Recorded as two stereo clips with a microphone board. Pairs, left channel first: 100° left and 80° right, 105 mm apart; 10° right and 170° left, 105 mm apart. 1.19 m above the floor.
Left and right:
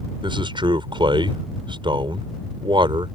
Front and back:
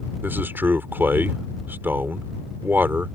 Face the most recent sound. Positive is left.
turn(degrees=-120)